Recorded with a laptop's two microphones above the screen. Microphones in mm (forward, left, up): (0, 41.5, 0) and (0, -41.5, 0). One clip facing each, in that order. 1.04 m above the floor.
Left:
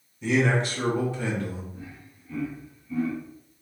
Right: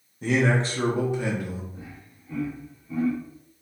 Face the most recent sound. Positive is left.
turn(degrees=-30)  # may be behind; listen again after turning